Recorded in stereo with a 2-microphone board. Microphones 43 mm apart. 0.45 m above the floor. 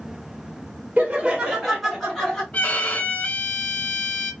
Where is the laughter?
25° right (ahead or behind), 1.2 m; by 2.4 s 10° left (ahead or behind), 1.7 m.